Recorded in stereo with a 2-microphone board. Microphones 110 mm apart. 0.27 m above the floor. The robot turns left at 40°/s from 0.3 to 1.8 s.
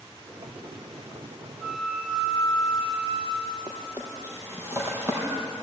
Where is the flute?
15° right (ahead or behind), 6.5 m; by 3.9 s 20° right (ahead or behind), 6.5 m.